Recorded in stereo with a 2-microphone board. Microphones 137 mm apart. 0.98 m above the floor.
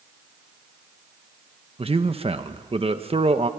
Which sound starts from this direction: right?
A man speaking, at 1.8 s.